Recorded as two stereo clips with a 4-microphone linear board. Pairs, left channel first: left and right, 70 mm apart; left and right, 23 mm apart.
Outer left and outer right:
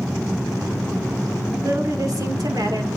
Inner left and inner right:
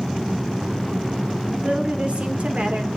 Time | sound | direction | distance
1.6 | a woman speaking | 50° right (ahead or behind) | 2.5 m